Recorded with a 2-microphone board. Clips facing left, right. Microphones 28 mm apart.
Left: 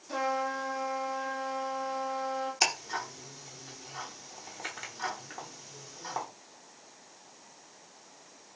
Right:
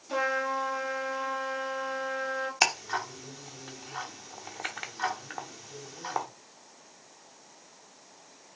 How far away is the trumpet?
About 1.4 m.